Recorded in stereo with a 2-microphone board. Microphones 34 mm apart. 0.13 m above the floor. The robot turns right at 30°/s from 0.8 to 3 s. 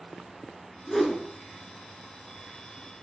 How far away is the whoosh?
About 1.2 m.